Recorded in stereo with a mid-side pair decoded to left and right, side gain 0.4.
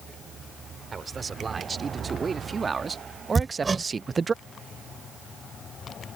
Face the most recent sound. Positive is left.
turn(degrees=-30)